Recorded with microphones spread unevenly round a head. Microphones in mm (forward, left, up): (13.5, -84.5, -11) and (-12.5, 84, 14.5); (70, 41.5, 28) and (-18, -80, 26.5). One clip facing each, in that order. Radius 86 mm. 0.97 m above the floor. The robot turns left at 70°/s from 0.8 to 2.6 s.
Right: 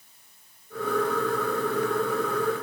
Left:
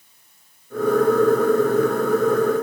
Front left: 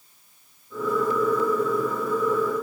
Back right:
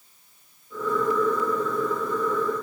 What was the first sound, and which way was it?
Only background noise.